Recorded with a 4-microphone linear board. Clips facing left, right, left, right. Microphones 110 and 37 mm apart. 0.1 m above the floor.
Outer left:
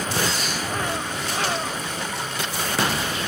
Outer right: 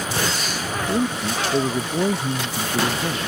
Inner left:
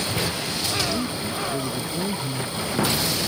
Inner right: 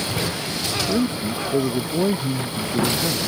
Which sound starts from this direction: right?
A man speaking, at 0.9 s.